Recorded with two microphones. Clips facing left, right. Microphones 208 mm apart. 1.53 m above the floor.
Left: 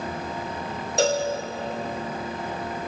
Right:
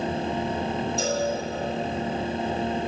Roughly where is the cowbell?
Left.